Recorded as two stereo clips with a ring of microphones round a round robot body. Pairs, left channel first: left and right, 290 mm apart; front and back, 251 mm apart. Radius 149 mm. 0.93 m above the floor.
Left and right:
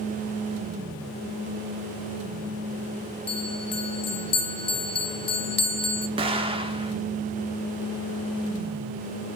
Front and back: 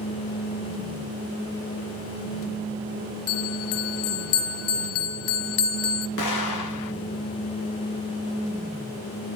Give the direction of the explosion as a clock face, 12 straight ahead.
1 o'clock.